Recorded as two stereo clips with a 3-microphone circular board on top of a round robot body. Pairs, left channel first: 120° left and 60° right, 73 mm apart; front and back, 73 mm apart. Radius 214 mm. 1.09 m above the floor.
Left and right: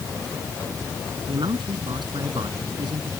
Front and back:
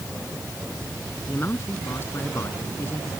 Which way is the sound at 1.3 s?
60° right.